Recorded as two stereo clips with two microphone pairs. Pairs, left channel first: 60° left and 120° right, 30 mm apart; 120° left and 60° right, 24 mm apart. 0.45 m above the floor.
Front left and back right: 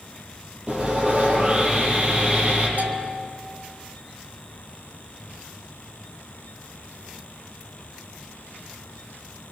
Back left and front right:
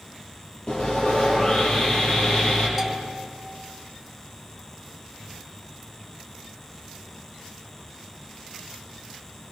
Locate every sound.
0.7 s sawing: straight behind, 7 m
2.8 s a bell: 135° right, 2.5 m